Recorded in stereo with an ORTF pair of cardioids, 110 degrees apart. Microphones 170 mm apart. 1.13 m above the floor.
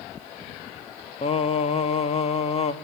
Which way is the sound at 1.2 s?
35° left.